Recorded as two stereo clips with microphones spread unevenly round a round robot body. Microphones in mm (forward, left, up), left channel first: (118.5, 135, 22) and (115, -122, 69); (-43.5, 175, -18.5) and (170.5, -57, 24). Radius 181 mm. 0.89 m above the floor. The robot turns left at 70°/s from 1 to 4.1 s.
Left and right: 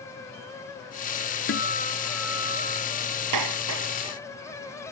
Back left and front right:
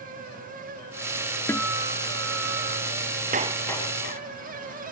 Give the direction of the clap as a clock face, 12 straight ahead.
4 o'clock.